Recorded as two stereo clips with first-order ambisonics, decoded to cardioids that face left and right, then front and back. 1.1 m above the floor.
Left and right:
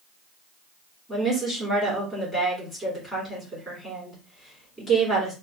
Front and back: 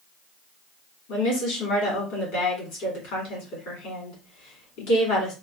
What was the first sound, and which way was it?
A woman speaking, 5° left.